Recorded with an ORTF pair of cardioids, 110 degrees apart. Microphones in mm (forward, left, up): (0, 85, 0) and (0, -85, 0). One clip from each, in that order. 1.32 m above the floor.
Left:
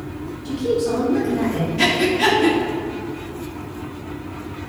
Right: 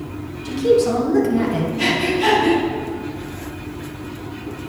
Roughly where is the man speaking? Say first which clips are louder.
Right 5 dB; ahead right.